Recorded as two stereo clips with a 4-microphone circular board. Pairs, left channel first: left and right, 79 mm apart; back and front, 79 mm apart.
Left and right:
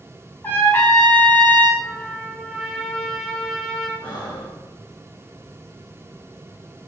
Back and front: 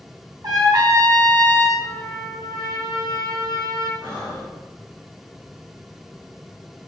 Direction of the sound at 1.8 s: Straight behind.